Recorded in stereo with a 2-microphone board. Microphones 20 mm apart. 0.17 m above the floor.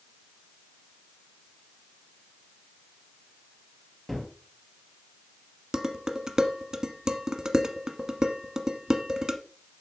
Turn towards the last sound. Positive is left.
turn(degrees=-30)  # may be behind; listen again after turning